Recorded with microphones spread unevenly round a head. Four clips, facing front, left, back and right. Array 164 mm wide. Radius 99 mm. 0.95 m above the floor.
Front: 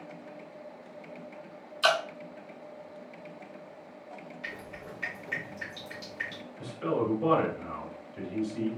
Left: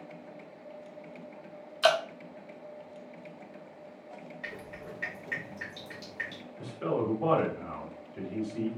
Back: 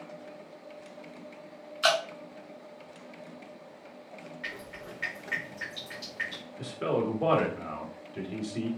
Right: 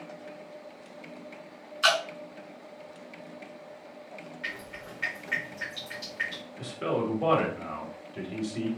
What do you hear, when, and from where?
1.8 s dripping: 90° left, 0.7 m
4.4 s dripping: 110° left, 1.7 m
6.6 s a man speaking: 145° right, 1.7 m